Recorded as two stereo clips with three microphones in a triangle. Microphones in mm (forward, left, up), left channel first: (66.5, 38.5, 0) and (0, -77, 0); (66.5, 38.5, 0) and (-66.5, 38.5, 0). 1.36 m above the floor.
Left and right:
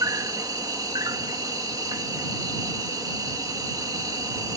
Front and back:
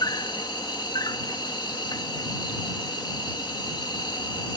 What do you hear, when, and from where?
0.0 s an insect: 55° right